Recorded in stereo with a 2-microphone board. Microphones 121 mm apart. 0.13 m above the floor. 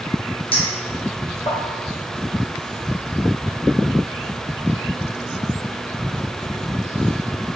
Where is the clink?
50° left (ahead or behind), 1.7 m.